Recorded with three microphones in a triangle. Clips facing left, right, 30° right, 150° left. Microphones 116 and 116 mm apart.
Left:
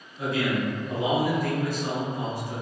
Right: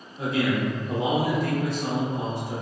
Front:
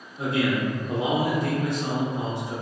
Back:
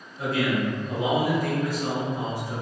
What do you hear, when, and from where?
0.2 s a man speaking: 65° right, 0.7 m